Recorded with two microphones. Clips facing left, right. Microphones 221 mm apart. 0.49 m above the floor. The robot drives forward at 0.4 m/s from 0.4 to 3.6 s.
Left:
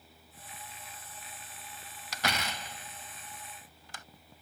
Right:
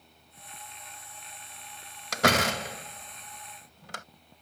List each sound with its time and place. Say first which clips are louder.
2.1 s a door slam: right 11 dB; 70° right (ahead or behind); by 4.0 s 65° right (ahead or behind)